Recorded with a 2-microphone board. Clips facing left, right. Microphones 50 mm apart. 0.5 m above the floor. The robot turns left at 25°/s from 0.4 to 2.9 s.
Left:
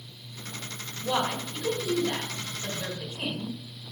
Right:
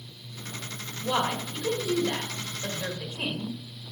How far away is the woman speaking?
About 1.9 m.